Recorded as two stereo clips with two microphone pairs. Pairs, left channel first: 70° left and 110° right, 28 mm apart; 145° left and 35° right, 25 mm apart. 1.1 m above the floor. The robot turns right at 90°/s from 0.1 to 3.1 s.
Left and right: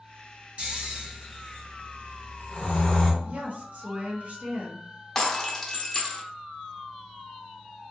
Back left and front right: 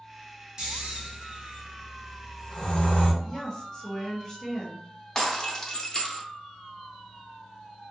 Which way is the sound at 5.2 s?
120° left.